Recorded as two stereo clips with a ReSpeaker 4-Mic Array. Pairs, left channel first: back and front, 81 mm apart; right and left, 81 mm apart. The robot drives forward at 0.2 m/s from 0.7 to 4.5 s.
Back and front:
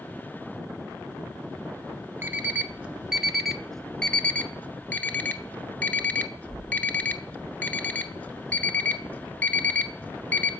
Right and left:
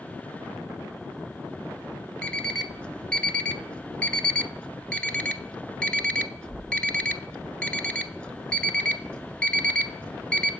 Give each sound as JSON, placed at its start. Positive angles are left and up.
{"t": 2.2, "sound": "an alarm clock", "azimuth_deg": -25, "distance_m": 0.6}